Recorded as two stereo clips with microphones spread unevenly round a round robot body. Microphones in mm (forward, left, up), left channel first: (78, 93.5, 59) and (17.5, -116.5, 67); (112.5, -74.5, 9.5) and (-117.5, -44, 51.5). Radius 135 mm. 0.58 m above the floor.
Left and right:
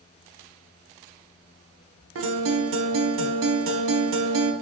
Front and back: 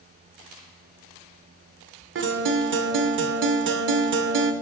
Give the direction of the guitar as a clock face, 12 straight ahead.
5 o'clock.